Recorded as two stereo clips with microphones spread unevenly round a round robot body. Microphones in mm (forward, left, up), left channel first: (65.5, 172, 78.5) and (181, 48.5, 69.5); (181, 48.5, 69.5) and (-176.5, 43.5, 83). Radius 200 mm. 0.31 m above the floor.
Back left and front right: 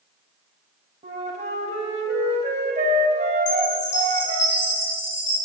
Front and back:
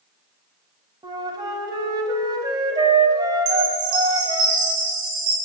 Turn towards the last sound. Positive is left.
turn(degrees=155)